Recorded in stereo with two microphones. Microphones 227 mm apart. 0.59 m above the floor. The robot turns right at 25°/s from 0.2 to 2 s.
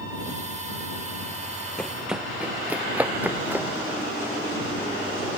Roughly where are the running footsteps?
Centre.